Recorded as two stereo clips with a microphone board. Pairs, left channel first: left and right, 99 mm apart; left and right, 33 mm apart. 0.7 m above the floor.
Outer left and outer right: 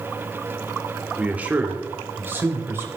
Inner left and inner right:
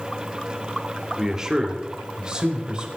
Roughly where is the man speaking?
Centre.